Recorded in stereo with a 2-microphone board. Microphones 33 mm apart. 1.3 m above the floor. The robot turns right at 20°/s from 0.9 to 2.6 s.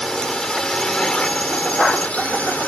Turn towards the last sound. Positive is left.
turn(degrees=55)